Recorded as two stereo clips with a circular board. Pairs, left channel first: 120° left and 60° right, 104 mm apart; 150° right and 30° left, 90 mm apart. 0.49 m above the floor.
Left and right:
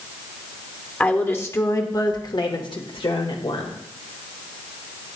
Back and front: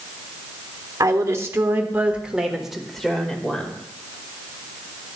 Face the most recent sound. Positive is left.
turn(degrees=135)